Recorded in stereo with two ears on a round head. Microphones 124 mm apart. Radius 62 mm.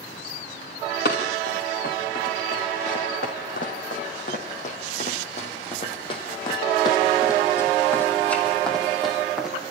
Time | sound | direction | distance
1.1 | running footsteps | 75° left (ahead or behind) | 5 m